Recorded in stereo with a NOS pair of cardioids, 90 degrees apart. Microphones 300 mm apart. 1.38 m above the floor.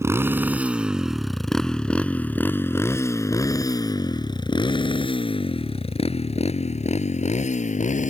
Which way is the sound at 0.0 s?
10° right.